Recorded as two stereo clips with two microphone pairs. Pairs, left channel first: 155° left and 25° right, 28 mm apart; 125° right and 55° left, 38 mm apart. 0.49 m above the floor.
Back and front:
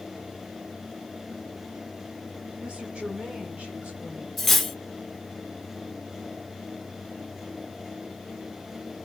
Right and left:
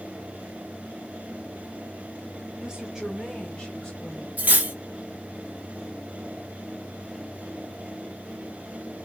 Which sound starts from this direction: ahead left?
Cutlery clinking, at 4.4 s.